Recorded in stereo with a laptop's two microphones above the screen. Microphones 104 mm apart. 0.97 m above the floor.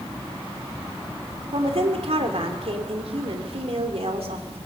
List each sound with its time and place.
1.5 s a woman speaking: 70° right (ahead or behind), 3.5 m